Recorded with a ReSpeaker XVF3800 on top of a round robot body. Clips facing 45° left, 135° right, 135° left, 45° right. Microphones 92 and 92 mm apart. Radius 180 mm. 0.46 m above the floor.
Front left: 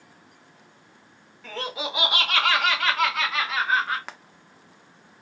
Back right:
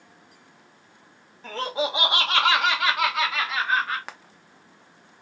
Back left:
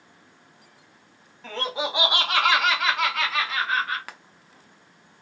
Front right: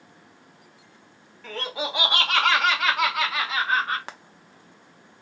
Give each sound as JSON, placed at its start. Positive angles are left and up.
{"t": 1.4, "sound": "laughter", "azimuth_deg": -175, "distance_m": 1.4}
{"t": 4.1, "sound": "frying", "azimuth_deg": -45, "distance_m": 0.7}